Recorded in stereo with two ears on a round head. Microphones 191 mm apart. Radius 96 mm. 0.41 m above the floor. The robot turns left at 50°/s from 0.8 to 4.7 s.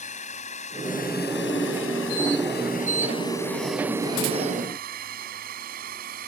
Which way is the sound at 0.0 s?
35° left (ahead or behind).